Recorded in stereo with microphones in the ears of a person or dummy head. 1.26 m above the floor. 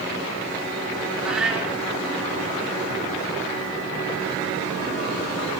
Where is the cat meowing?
5° right (ahead or behind), 1.1 m.